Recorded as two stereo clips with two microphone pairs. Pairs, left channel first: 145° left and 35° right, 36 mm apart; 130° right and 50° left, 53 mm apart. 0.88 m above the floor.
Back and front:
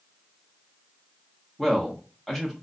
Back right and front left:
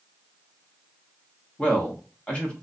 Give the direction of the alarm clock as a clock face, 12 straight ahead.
I don't hear an alarm clock.